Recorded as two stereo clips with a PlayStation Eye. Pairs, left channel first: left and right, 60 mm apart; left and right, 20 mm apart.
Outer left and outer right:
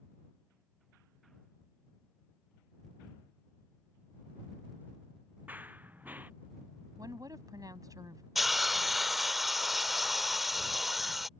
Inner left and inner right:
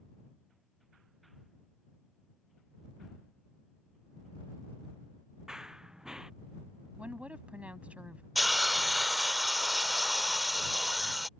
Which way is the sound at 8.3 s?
5° right (ahead or behind).